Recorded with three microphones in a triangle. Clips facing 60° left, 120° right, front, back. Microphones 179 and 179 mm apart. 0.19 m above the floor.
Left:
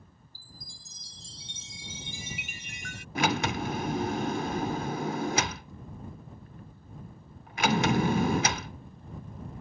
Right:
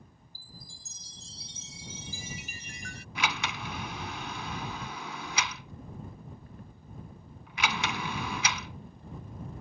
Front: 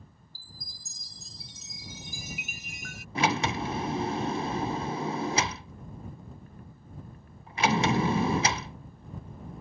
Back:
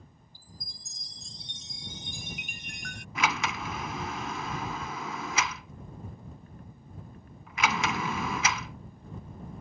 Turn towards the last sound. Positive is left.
turn(degrees=45)